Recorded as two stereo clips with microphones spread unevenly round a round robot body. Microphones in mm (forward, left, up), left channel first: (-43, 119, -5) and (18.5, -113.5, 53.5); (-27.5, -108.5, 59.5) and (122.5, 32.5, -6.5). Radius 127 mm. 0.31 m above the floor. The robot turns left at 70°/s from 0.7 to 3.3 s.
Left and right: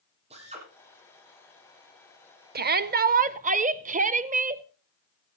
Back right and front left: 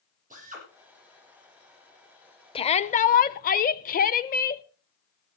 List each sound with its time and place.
0.3 s a drill: 10° right, 8 m
2.5 s a shout: 65° right, 0.9 m; by 4.6 s 120° right, 0.9 m